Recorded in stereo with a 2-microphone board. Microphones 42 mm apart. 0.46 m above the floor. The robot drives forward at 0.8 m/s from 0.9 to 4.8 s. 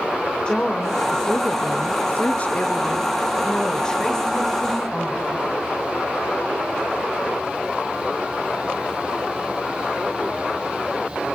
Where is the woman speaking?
20° left (ahead or behind), 1.3 m; by 5.4 s 10° left (ahead or behind), 2.5 m.